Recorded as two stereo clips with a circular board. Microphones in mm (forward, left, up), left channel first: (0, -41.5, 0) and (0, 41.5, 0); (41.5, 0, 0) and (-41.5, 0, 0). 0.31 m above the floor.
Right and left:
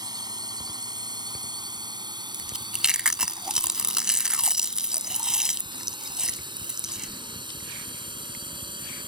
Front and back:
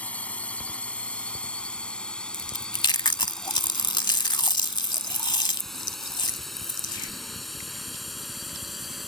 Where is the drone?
70° left; by 9.1 s 90° left.